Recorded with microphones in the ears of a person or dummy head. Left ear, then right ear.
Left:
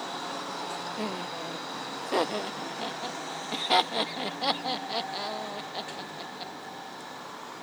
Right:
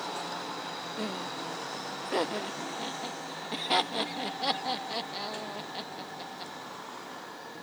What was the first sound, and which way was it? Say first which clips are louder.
Laughter: left 2 dB; 15° left (ahead or behind).